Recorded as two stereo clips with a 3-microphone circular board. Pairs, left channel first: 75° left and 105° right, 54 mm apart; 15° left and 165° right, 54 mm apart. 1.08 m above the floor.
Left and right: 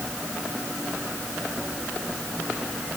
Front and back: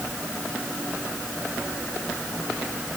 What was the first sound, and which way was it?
Only background noise.